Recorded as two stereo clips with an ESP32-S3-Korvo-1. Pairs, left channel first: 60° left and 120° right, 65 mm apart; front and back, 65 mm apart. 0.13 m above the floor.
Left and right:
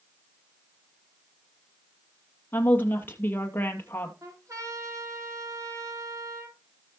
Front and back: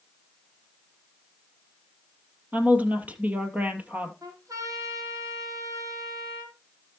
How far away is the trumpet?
About 5 m.